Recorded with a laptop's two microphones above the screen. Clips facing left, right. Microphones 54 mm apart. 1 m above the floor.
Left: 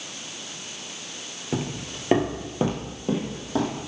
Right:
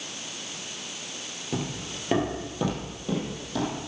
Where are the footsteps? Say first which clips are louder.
Left 3 dB; 20° left (ahead or behind), 1.1 m; by 3.8 s 35° left (ahead or behind), 2.5 m.